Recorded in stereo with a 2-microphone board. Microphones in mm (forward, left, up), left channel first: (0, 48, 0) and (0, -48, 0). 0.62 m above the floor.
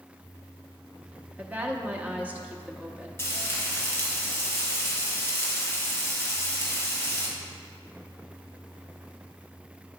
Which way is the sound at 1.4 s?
15° right (ahead or behind).